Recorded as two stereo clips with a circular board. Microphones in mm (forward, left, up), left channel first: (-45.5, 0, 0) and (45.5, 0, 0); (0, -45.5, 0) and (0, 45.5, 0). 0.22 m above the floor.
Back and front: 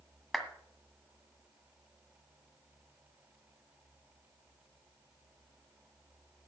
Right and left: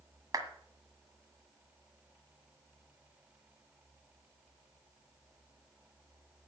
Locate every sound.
0.3 s a clap: 90° left, 1.7 m